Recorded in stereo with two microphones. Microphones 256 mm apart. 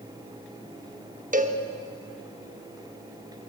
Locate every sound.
1.3 s a cowbell: 30° right (ahead or behind), 0.7 m